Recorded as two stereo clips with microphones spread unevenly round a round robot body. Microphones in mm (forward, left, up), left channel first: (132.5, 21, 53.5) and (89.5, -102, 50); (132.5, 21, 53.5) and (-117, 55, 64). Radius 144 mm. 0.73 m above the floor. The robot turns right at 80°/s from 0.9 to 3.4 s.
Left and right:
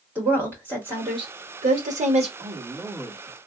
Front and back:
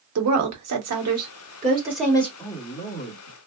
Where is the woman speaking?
175° left, 1.3 m; by 2.3 s 70° right, 1.3 m.